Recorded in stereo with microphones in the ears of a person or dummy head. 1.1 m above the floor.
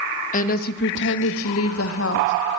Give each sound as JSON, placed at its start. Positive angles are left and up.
{"t": 0.3, "sound": "a woman speaking", "side_deg": 45, "distance_m": 1.3}